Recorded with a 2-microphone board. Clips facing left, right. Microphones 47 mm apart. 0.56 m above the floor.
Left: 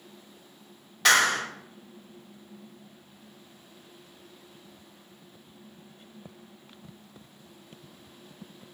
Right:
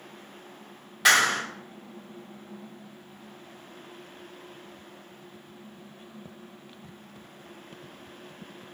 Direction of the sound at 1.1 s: 5° right (ahead or behind).